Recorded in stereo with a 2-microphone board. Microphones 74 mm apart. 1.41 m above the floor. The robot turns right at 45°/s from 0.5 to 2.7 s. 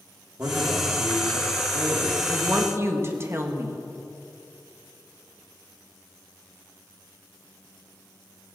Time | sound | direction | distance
0.4 | a man speaking | 145° right | 3.5 m
2.3 | a woman speaking | 15° right (ahead or behind) | 1.7 m